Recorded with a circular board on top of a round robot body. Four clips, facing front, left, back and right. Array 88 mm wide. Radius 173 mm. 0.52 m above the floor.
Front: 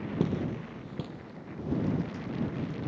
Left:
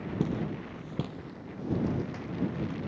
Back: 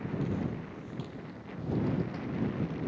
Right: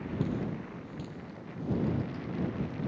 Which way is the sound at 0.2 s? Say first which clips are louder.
Left 2 dB, front 6 dB; 15° left.